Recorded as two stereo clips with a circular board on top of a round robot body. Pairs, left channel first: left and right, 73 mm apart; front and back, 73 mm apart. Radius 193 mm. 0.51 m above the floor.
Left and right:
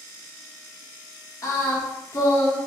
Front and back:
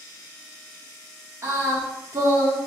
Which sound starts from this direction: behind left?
Singing, at 1.4 s.